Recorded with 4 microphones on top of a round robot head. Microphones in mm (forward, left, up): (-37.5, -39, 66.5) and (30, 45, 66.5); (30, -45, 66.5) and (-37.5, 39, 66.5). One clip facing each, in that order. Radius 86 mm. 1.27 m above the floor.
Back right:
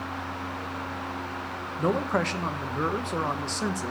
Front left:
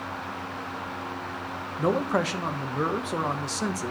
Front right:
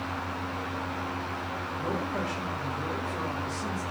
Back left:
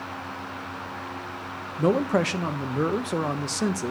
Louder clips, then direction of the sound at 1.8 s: Front left 1 dB, back left 11 dB; 135° left.